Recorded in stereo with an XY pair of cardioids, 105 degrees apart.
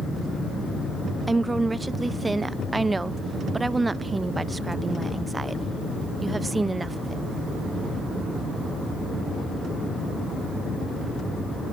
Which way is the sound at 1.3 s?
20° right.